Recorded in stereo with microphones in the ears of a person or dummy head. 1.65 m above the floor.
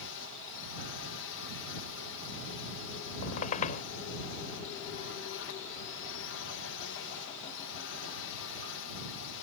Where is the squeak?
45° left (ahead or behind).